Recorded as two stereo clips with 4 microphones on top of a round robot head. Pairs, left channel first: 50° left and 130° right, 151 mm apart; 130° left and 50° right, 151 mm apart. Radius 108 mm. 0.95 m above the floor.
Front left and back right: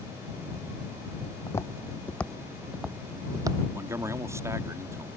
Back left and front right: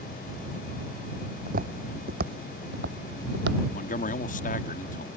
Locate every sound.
1.5 s footsteps: 20° right; by 3.6 s 65° right
3.7 s a man speaking: 160° left